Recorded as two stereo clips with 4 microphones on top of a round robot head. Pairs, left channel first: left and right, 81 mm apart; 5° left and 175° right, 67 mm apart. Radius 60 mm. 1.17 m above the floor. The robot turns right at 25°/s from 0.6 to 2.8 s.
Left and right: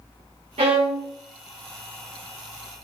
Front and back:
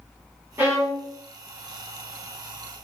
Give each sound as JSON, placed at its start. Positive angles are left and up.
{"t": 0.6, "sound": "a violin", "azimuth_deg": -105, "distance_m": 1.5}